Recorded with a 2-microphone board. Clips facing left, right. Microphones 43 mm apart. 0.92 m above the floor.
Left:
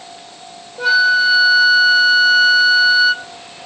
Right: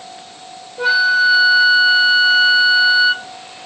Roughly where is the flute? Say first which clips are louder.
Left 1 dB; centre.